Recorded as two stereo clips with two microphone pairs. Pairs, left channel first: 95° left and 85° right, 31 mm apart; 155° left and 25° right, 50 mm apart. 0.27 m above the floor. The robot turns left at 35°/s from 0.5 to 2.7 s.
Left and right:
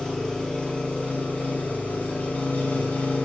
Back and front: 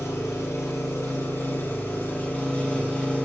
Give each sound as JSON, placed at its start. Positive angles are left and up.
{"t": 0.0, "sound": "an engine running", "azimuth_deg": 165, "distance_m": 3.5}